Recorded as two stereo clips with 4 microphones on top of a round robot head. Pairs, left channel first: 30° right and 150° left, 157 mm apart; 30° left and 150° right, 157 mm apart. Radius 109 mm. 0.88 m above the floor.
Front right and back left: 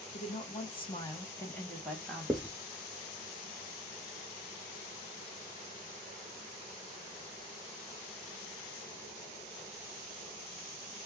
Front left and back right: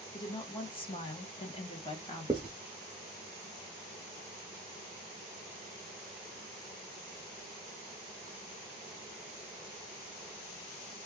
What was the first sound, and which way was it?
A woman speaking, 15° right.